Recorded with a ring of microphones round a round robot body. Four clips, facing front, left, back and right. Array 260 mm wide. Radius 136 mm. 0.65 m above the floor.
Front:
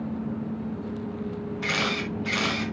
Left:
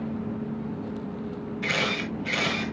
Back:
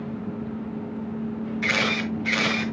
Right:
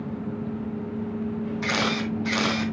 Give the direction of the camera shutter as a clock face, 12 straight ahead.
4 o'clock.